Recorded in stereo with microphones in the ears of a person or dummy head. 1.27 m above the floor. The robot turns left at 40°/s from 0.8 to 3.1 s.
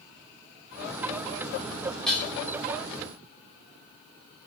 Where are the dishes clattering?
5° left (ahead or behind), 4 m; by 2.3 s 15° left (ahead or behind), 4 m.